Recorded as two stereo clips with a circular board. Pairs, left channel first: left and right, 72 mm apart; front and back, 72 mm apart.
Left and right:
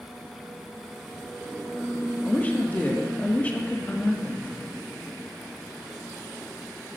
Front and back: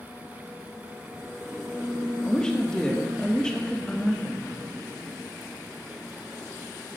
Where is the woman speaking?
65° left, 1.1 m.